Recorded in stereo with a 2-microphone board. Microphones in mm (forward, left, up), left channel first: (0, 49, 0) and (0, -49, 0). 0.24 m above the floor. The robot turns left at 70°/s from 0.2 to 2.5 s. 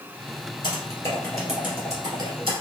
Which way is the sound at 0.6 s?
55° left (ahead or behind).